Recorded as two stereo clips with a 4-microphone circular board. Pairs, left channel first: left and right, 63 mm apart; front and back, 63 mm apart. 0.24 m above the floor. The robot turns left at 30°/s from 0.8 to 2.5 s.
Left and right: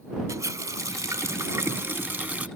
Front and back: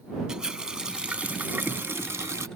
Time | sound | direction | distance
0.3 | a running tap | 105° right | ?